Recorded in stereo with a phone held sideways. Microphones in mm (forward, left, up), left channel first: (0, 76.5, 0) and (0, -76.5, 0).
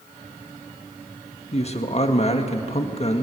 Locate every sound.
1.5 s a man speaking: 45° left (ahead or behind), 1.6 m